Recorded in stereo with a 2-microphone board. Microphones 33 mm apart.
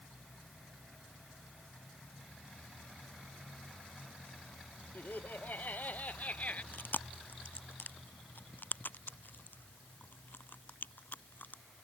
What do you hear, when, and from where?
5.0 s laughter: 60° left (ahead or behind); by 6.6 s 45° left (ahead or behind)
6.7 s chewing: 65° left (ahead or behind)